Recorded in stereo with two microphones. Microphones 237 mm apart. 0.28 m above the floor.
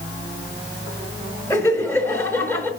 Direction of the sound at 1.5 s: 10° left (ahead or behind).